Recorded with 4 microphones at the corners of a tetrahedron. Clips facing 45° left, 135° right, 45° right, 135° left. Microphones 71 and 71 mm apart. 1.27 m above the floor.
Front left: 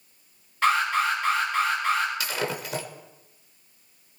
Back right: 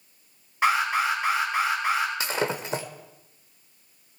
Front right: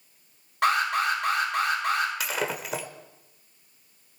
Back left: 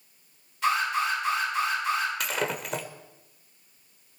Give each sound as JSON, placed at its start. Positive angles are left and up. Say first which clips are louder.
{"t": 0.6, "sound": "an alarm", "louder": "even, front right 2 dB", "azimuth_deg": -65, "distance_m": 6.0}
{"t": 2.2, "sound": "breaking glass", "louder": "back right 2 dB, even", "azimuth_deg": -130, "distance_m": 1.0}